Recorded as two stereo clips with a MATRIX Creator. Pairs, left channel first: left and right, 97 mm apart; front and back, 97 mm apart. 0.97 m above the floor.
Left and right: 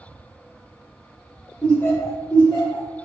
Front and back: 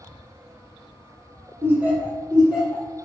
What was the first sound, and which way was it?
Laughter, 170° left.